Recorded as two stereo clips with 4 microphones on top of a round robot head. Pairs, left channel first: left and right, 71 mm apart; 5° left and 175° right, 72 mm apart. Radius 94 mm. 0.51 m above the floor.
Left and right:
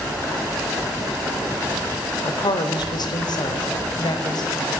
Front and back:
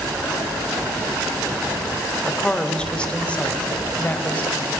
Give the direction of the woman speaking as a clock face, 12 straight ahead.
9 o'clock.